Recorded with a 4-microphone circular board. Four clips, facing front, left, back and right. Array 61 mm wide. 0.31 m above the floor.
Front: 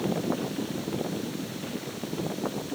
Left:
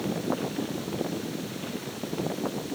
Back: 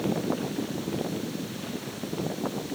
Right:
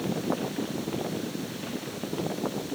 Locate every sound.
Only background noise.